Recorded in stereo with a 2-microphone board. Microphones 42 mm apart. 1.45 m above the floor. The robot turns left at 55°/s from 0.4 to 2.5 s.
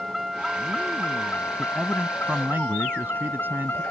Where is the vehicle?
Straight behind; by 3.9 s 65° left.